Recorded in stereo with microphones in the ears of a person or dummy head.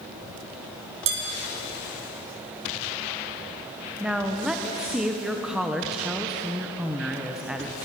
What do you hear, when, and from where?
1.1 s dishes clattering: 70° right (ahead or behind), 5 m
4.0 s a woman speaking: 10° right (ahead or behind), 1.1 m